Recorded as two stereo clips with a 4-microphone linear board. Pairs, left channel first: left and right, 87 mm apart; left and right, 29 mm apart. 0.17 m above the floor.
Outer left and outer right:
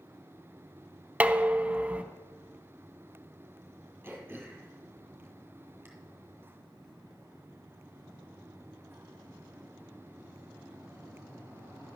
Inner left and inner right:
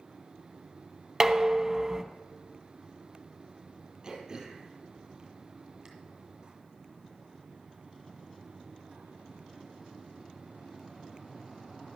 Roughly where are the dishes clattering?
Centre.